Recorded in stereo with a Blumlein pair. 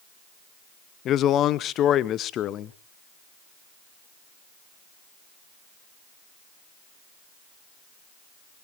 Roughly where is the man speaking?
Ahead left.